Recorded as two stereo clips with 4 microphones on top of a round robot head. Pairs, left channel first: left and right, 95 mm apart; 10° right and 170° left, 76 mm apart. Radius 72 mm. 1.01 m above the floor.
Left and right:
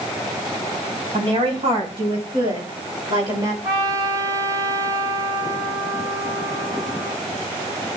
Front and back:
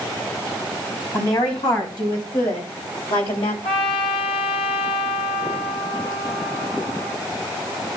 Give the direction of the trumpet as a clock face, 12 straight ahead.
1 o'clock.